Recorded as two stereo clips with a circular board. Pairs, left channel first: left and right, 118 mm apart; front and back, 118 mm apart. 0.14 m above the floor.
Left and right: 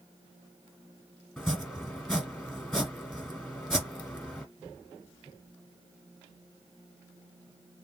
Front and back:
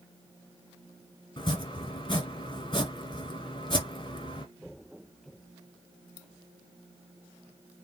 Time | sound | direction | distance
1.4 | chopping | 5° left | 1.6 m